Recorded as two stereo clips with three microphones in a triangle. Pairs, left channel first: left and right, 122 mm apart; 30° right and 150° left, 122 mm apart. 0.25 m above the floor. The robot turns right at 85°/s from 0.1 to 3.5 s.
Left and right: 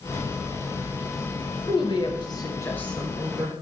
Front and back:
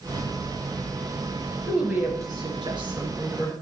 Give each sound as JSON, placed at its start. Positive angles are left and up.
{"t": 1.7, "sound": "a woman speaking", "azimuth_deg": 60, "distance_m": 1.2}